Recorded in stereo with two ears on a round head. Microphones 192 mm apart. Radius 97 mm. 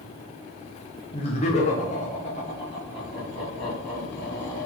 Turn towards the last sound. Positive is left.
turn(degrees=30)  # may be behind; listen again after turning